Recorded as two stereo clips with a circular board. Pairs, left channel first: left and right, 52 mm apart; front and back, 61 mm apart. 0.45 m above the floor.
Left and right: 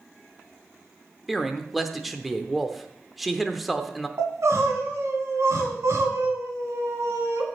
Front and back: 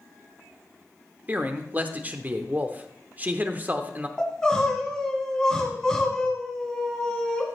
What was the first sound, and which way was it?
A man speaking, 175° right.